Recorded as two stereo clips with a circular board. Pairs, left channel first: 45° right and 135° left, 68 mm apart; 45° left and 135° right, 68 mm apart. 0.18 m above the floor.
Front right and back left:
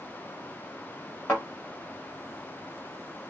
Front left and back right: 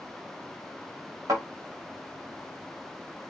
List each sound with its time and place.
1.3 s a thud: 115° right, 5 m